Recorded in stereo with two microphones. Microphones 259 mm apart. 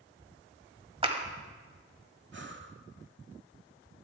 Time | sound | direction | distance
1.0 | a clap | 20° right (ahead or behind) | 1.3 m
2.3 | breathing | 45° right (ahead or behind) | 0.8 m